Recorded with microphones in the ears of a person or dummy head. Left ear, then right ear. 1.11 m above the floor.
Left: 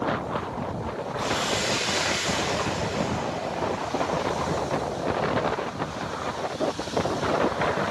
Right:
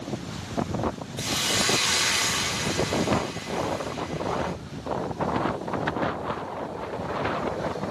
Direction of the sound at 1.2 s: 10° right (ahead or behind).